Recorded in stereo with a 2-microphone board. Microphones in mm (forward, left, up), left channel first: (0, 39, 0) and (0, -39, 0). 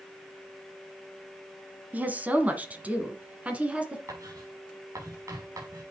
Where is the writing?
45° right (ahead or behind), 5.5 m.